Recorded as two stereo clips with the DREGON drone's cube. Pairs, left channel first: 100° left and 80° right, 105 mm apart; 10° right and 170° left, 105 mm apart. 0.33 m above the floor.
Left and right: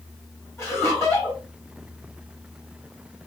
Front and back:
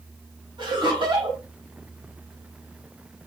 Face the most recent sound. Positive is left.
turn(degrees=155)